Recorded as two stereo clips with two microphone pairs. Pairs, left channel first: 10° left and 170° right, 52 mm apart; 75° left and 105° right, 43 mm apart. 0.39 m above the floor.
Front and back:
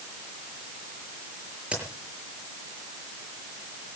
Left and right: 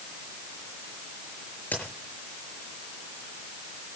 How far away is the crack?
About 6 m.